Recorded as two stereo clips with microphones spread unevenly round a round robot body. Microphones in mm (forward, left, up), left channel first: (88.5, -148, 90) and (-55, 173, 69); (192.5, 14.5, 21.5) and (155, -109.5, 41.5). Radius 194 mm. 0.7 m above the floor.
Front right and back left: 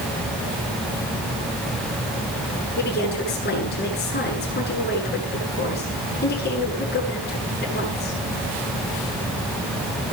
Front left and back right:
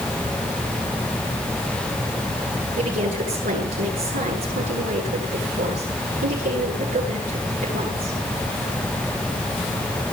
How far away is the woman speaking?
About 9 m.